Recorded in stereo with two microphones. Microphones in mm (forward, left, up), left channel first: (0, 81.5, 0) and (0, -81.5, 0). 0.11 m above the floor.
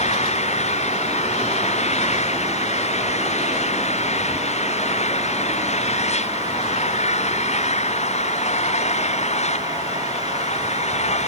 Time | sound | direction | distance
0.0 | an engine running | 45° left (ahead or behind) | ?